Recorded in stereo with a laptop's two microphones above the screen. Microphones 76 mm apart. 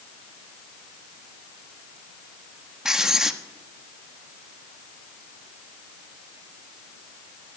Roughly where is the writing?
Centre.